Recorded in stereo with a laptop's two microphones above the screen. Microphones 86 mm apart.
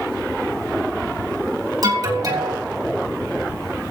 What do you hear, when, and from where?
1.8 s an alarm: 45° right (ahead or behind), 2.5 m